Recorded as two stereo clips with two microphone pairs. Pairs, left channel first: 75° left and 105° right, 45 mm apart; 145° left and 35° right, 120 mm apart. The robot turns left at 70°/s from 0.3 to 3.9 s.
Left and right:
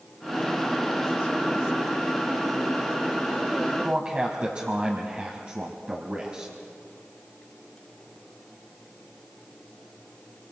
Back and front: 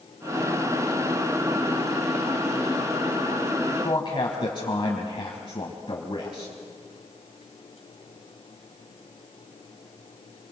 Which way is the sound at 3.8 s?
160° right.